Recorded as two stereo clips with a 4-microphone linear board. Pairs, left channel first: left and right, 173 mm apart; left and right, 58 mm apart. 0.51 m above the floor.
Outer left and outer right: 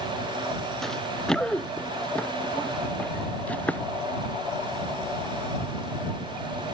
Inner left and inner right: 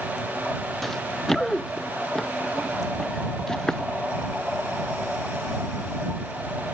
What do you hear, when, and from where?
0.8 s running footsteps: centre (ahead or behind); by 3.9 s 10° left (ahead or behind)